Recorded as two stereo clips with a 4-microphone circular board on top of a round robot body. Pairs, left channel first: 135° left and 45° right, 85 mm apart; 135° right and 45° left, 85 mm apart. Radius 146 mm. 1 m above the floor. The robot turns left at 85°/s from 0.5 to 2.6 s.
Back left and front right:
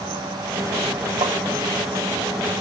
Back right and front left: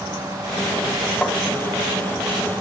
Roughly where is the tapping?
Ahead right.